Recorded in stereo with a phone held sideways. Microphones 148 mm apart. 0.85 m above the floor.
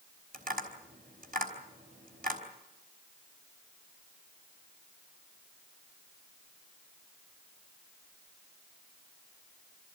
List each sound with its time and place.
0.3 s tapping: 75° right (ahead or behind), 4.5 m